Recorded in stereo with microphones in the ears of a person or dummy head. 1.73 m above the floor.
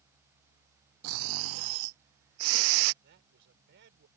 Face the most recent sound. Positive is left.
turn(degrees=-65)  # may be behind; listen again after turning